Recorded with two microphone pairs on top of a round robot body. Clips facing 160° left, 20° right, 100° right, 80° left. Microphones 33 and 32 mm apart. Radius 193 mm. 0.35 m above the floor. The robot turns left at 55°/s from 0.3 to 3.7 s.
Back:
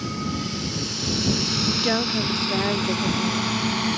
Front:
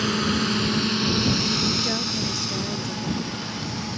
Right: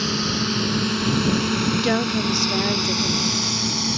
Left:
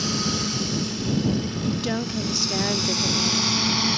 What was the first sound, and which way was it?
A drone, 35° right.